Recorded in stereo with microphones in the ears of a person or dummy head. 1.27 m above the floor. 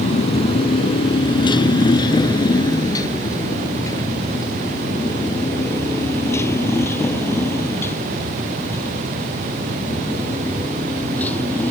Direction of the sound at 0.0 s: 30° left (ahead or behind).